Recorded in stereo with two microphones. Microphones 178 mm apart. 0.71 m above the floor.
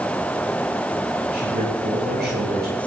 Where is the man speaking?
80° right, 6.5 m.